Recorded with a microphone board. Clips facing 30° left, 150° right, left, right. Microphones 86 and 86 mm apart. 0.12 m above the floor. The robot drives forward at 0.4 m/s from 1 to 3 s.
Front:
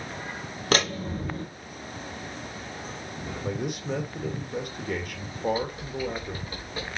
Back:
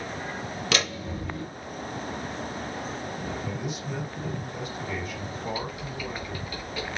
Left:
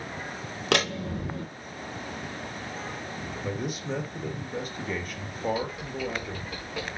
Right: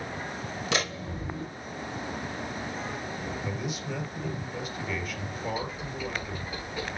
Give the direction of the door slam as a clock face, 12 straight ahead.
9 o'clock.